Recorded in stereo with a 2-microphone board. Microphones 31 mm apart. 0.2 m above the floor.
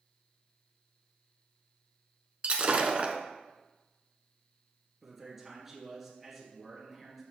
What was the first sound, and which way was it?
Breaking glass, 40° right (ahead or behind).